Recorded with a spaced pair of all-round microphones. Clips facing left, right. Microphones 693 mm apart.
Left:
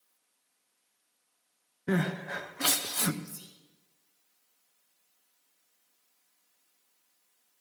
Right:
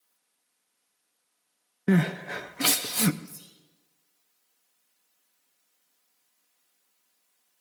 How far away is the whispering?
About 1.4 m.